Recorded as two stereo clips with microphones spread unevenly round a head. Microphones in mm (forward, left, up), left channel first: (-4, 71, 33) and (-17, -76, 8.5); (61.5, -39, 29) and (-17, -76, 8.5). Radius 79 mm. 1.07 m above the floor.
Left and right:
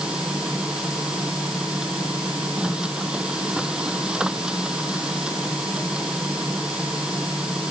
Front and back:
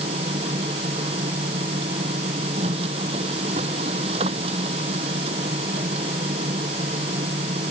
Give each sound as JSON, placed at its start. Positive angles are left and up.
{"t": 0.0, "sound": "a machine running", "azimuth_deg": 180}